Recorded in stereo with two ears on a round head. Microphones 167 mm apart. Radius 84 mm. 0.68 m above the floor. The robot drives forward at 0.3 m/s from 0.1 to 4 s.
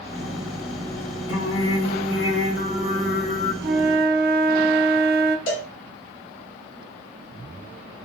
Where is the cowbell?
70° left (ahead or behind), 1.3 m.